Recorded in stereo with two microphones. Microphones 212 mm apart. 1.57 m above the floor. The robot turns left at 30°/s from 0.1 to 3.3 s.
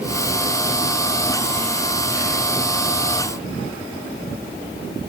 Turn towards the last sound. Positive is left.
No sound to turn to.